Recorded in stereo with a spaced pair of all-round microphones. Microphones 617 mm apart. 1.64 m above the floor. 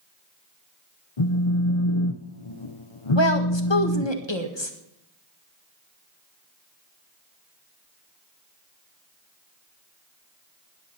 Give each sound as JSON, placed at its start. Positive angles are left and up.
{"t": 1.2, "sound": "a phone buzzing", "side_deg": 55, "distance_m": 0.8}
{"t": 3.1, "sound": "a woman speaking", "side_deg": 45, "distance_m": 1.6}